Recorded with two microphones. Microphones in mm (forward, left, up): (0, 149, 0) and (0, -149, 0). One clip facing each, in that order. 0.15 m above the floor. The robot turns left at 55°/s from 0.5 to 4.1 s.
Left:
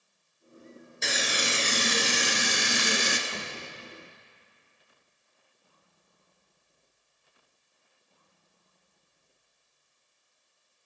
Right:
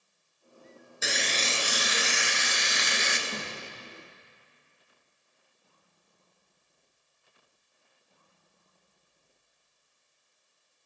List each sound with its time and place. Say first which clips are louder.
1.0 s frying: left 1 dB; 175° right, 1.1 m; by 3.2 s 65° left, 1.1 m
3.3 s a door slam: right 1 dB; 30° right (ahead or behind), 5.5 m; by 3.5 s 15° right (ahead or behind), 5.5 m